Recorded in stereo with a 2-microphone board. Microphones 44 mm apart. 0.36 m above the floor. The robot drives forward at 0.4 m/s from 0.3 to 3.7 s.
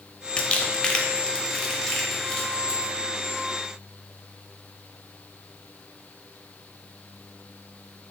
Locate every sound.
0.4 s crumpling: 25° left (ahead or behind), 0.5 m; by 2.9 s 10° left (ahead or behind), 1.5 m